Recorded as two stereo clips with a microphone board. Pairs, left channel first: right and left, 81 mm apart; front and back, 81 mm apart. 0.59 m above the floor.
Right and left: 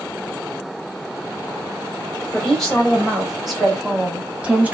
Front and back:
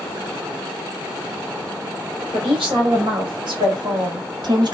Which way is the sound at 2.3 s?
175° right.